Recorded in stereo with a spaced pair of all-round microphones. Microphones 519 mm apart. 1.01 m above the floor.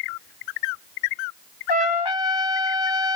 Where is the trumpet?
50° left (ahead or behind), 0.6 m.